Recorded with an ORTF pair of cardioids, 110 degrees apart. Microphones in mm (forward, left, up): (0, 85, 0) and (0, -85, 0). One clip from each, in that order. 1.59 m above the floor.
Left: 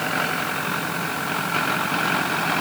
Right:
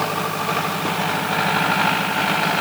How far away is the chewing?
I don't hear chewing.